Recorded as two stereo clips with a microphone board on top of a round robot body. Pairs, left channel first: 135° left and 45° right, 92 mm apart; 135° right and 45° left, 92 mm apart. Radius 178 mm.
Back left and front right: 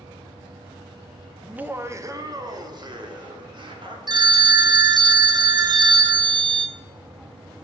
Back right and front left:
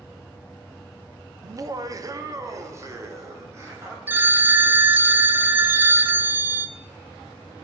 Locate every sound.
1.4 s laughter: 35° left, 0.6 m; by 4.0 s 15° right, 1.8 m
4.1 s a phone ringing: 20° right, 0.7 m